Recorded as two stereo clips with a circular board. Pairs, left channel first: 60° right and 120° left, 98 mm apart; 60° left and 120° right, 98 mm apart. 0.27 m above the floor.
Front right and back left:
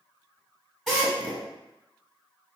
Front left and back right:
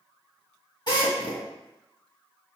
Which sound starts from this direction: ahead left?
A drill, at 0.9 s.